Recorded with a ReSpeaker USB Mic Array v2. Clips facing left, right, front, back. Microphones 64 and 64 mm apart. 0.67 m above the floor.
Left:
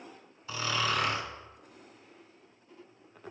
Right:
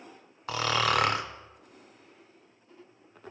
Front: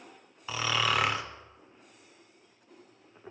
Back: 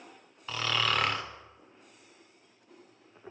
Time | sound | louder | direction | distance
0.5 | snoring | right 5 dB, front 1 dB | 85° right | 0.5 m